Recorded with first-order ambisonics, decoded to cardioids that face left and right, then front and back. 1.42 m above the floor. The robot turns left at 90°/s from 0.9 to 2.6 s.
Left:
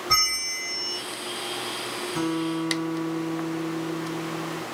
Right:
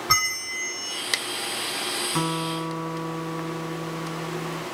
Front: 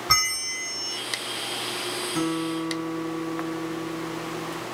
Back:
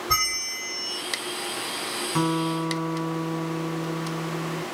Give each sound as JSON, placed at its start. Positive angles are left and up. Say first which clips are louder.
{"t": 0.1, "sound": "a bell", "louder": "even, front 2 dB", "azimuth_deg": -40, "distance_m": 2.5}
{"t": 2.1, "sound": "a guitar", "louder": "right 1 dB, back 4 dB", "azimuth_deg": -140, "distance_m": 2.0}